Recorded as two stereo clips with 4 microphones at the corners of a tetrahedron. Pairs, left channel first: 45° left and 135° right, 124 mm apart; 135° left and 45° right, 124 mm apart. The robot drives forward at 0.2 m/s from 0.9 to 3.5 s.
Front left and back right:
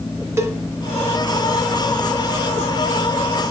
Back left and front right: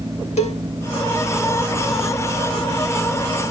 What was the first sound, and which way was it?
A cowbell, 160° left.